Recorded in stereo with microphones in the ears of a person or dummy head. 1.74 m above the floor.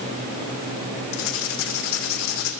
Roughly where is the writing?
Left.